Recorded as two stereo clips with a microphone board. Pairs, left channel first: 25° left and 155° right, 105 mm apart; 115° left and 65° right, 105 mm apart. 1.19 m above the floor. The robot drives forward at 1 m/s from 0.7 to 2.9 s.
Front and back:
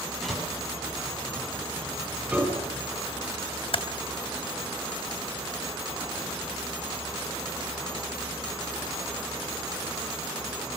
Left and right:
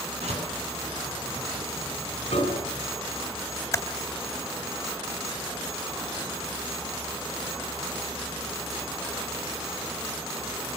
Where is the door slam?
65° right, 8 m.